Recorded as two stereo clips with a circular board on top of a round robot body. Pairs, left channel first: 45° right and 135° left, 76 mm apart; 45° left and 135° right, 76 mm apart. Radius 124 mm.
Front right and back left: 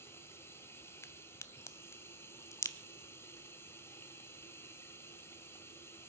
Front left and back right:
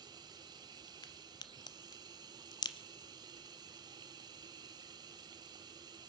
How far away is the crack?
About 0.6 m.